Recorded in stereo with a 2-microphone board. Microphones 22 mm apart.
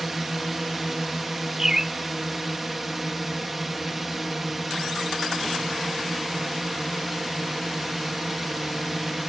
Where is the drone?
5° right (ahead or behind).